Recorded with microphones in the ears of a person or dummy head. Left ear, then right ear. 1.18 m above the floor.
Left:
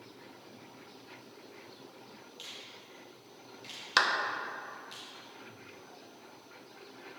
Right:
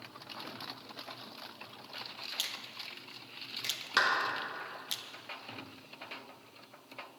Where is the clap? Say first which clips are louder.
Left 1 dB; 15° left (ahead or behind), 0.8 m.